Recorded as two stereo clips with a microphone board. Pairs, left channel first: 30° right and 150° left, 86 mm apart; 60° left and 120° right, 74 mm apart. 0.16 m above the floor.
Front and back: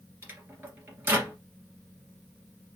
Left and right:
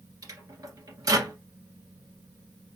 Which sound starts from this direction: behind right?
A microwave, at 0.2 s.